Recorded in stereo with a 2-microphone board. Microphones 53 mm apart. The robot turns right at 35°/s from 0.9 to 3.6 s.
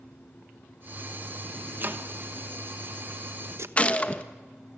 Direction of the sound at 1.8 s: 40° right (ahead or behind).